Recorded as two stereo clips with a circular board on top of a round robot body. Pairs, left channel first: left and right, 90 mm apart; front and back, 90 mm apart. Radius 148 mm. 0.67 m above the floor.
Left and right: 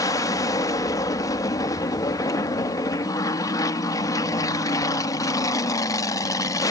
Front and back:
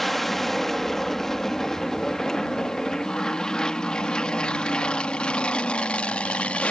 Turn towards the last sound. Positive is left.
turn(degrees=70)